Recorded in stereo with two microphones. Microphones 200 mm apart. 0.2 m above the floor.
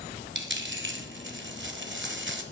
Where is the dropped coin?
70° right (ahead or behind), 1.1 m.